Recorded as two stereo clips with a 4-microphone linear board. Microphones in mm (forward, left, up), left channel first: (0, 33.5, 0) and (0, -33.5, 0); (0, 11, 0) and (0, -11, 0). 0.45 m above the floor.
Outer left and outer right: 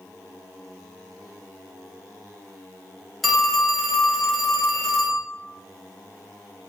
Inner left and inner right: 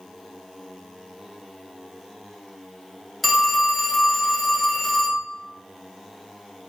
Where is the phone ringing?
Centre (ahead or behind), 0.6 m.